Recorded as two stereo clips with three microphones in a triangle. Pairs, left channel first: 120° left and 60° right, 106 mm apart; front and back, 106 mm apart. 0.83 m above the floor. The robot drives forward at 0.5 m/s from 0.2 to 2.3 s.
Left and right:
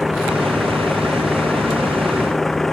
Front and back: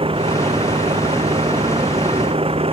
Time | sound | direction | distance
0.0 | a vehicle | 150° right | ?